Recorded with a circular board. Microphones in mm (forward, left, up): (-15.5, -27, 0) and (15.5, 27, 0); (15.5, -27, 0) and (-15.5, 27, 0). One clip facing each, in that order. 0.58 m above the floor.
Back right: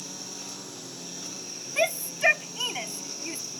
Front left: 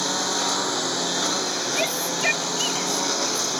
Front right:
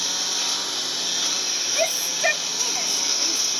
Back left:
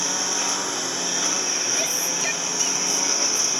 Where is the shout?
55° right.